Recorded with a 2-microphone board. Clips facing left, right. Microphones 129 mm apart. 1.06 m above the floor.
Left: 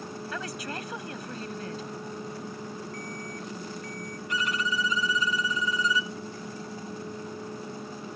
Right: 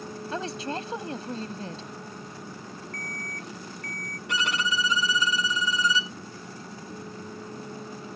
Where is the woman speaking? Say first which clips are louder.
Right 6 dB; 30° right (ahead or behind).